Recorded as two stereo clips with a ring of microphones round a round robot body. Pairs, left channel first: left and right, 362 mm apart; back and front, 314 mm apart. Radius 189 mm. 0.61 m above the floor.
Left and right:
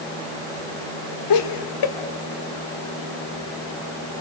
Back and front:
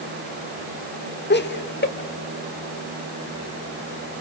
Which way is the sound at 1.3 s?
120° left.